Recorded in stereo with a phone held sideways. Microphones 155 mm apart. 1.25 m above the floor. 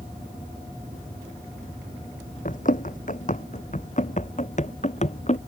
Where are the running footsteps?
55° left (ahead or behind); by 5.4 s 45° left (ahead or behind).